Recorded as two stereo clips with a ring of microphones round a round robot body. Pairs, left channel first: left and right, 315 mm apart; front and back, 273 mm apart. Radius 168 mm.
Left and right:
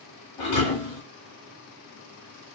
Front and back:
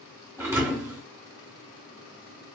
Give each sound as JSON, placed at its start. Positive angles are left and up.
{"t": 0.4, "sound": "a thud", "azimuth_deg": 100, "distance_m": 2.5}